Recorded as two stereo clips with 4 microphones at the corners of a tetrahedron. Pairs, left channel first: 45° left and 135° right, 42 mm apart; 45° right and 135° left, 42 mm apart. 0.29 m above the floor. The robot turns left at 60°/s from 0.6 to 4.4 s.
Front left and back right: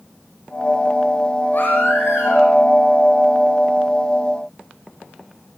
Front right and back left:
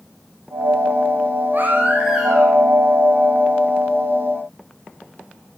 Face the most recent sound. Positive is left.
turn(degrees=-80)